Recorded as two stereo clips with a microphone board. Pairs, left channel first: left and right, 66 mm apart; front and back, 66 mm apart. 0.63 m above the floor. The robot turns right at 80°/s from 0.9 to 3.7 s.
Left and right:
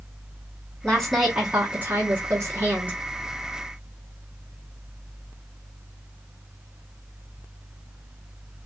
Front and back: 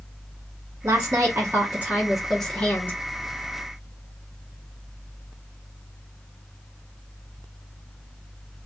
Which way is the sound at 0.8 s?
160° left.